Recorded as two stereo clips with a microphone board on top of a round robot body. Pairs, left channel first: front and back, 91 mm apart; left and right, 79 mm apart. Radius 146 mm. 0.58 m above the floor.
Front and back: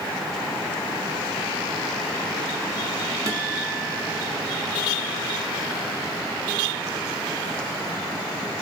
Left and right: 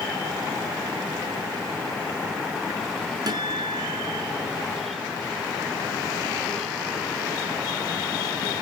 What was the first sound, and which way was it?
A guitar, 125° right.